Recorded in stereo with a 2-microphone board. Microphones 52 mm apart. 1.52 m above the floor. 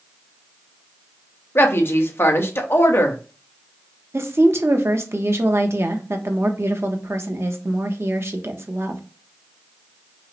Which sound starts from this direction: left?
A woman speaking, at 1.6 s.